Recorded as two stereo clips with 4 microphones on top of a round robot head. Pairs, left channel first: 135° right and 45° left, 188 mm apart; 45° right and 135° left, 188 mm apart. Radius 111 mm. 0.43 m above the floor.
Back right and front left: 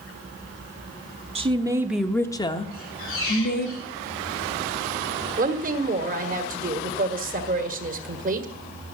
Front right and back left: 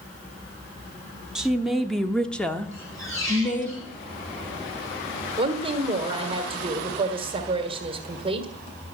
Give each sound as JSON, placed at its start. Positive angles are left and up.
{"t": 1.4, "sound": "a woman speaking", "azimuth_deg": 50, "distance_m": 1.0}
{"t": 2.7, "sound": "a squeak", "azimuth_deg": -120, "distance_m": 8.5}
{"t": 5.4, "sound": "a woman speaking", "azimuth_deg": 80, "distance_m": 1.7}